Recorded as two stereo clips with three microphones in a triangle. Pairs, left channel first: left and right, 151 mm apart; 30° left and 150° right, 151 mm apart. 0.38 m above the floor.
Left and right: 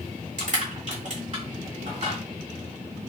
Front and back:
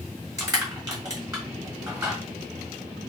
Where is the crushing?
90° right, 2 m.